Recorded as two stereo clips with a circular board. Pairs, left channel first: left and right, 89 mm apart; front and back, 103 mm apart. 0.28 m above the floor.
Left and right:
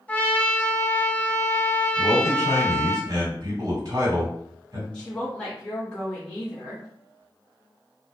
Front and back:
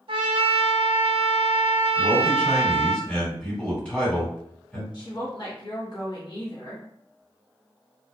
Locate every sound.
0.1 s a trumpet: 160° left, 0.6 m
2.0 s a man speaking: 75° right, 1.8 m
4.9 s a woman speaking: 15° left, 1.3 m